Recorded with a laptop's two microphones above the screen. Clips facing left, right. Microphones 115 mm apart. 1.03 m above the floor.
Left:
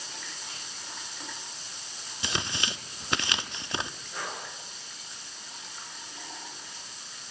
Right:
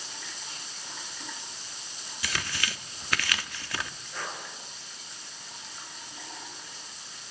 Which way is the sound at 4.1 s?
15° left (ahead or behind).